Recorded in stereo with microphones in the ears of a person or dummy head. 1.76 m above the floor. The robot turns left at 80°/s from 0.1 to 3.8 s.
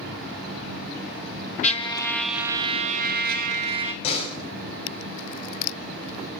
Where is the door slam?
35° left (ahead or behind), 8 m.